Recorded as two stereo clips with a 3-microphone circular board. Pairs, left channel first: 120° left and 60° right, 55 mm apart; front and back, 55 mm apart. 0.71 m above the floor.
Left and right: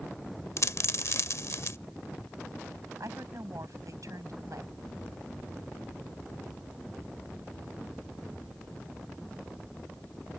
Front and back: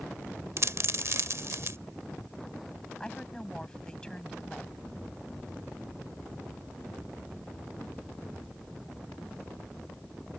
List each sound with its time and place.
0.6 s a dropped coin: 145° left
3.0 s a woman speaking: 75° right